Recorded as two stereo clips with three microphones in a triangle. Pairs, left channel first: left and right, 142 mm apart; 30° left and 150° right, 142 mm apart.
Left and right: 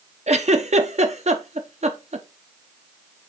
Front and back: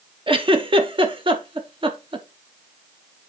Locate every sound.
0.3 s a giggle: 105° right, 0.8 m